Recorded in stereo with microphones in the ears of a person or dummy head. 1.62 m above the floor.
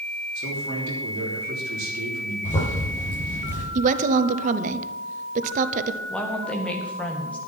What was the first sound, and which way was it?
A man speaking, 55° right (ahead or behind).